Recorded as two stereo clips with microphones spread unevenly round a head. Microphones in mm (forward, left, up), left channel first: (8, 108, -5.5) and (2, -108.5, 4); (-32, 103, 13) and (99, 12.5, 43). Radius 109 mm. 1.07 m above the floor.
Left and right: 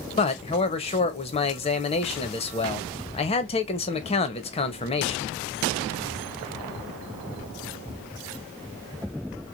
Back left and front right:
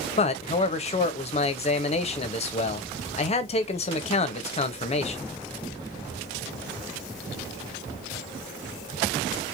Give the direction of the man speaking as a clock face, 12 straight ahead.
7 o'clock.